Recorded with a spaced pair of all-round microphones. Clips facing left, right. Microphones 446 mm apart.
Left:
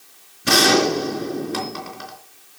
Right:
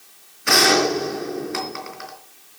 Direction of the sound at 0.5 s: 55° left (ahead or behind).